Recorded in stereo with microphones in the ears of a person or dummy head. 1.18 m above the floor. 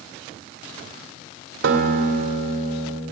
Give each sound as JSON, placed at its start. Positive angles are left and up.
{"t": 1.6, "sound": "a guitar", "side_deg": -80, "distance_m": 2.0}